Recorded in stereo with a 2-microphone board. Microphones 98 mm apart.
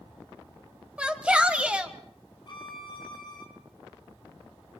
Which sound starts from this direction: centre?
A shout, at 1.0 s.